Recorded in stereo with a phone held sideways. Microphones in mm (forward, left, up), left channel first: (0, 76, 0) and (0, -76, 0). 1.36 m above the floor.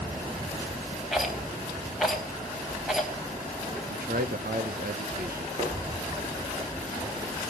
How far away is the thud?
About 10 m.